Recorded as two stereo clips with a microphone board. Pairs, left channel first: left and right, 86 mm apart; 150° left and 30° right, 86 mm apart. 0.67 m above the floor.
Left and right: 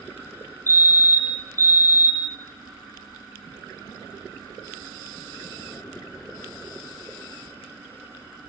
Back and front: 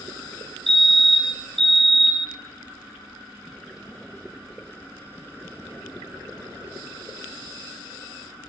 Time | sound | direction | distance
0.7 | a fire alarm | 65° left | 1.7 m